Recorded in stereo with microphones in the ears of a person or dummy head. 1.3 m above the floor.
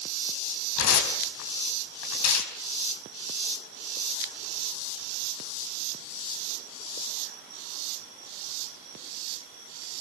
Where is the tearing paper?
75° left (ahead or behind), 3.5 m.